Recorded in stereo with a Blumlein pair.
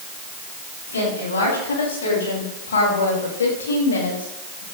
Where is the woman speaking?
65° left, 7.5 m.